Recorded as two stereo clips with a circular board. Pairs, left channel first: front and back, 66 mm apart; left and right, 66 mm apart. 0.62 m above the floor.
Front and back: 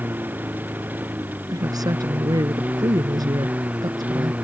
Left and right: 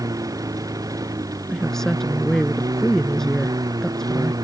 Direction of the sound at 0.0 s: 120° right.